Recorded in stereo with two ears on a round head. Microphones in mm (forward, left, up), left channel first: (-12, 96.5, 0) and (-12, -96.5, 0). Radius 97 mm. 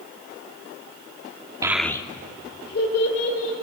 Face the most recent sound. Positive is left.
turn(degrees=65)  # may be behind; listen again after turning